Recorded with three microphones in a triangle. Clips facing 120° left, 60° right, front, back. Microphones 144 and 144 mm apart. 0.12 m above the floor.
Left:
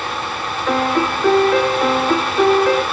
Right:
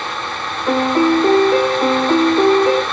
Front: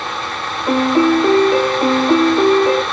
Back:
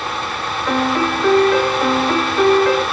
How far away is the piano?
About 1.0 m.